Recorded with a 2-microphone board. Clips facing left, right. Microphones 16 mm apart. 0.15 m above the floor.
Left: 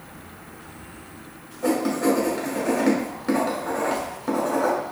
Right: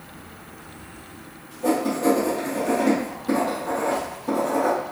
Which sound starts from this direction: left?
Writing, at 1.6 s.